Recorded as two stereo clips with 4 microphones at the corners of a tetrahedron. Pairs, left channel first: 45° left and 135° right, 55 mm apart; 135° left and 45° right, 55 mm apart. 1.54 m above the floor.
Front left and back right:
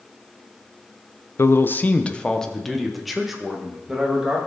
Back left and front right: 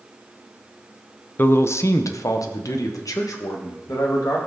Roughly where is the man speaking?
Left.